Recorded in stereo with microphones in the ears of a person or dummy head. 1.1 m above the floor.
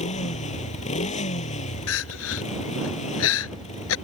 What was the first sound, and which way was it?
A motorcycle, 35° left (ahead or behind).